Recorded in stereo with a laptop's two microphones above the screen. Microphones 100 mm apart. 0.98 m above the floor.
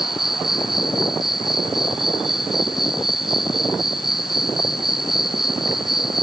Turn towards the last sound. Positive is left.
turn(degrees=-5)  # may be behind; listen again after turning